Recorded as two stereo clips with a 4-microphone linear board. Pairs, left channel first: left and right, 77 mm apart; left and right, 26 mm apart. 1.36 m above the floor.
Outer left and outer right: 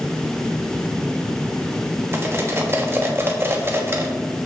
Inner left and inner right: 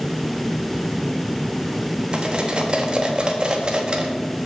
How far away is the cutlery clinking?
About 1.1 m.